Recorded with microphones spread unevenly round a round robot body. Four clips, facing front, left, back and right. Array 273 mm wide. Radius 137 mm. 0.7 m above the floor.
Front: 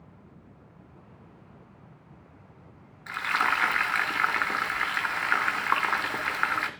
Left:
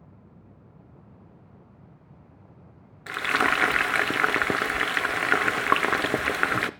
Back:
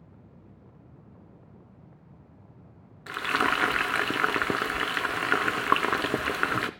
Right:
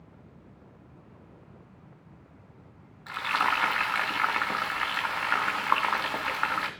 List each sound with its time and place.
3.1 s frying: 125° left, 0.5 m